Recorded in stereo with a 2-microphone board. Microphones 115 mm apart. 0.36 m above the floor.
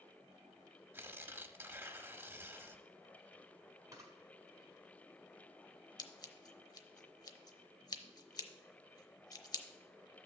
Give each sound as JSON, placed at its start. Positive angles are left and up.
{"t": 0.9, "sound": "tearing paper", "side_deg": -20, "distance_m": 0.7}
{"t": 3.9, "sound": "a camera shutter", "side_deg": -30, "distance_m": 1.6}
{"t": 6.0, "sound": "scissors", "side_deg": 35, "distance_m": 0.8}